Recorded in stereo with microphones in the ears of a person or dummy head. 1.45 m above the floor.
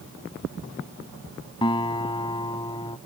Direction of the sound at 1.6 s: 20° left (ahead or behind).